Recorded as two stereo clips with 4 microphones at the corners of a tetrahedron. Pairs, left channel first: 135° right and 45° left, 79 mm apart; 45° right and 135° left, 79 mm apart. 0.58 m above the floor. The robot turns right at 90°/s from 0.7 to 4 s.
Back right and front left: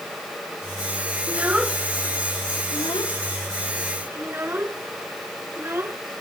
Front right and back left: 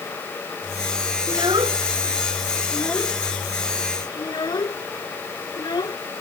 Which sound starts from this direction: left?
A child speaking, at 1.3 s.